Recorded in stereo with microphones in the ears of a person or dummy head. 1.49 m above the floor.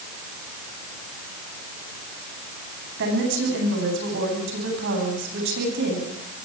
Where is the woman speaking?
60° right (ahead or behind), 9.5 m.